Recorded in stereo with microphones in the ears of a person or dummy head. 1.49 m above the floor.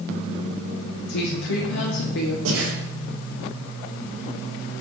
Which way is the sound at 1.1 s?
65° left (ahead or behind).